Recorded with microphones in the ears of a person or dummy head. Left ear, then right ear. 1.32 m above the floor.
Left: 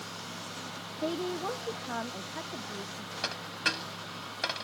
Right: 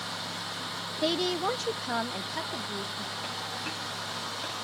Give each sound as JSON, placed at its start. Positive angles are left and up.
{"t": 1.0, "sound": "a woman speaking", "side_deg": -45}
{"t": 3.2, "sound": "a dropped coin", "side_deg": 65}